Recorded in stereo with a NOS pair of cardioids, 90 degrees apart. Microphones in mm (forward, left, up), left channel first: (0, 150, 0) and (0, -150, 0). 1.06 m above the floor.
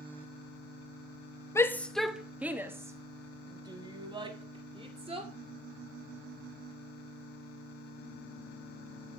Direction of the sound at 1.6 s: 10° left.